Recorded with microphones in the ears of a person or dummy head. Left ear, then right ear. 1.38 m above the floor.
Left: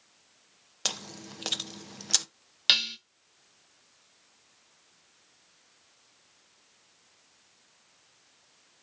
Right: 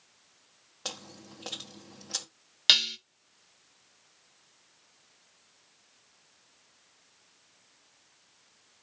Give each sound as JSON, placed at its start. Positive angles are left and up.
{"t": 0.8, "sound": "chewing", "side_deg": 70, "distance_m": 1.0}
{"t": 2.7, "sound": "dishes clattering", "side_deg": 0, "distance_m": 0.7}